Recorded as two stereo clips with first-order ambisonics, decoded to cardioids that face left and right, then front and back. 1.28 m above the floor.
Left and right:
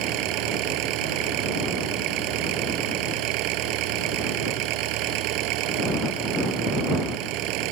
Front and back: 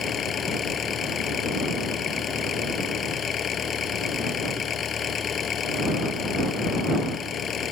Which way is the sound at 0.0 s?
65° right.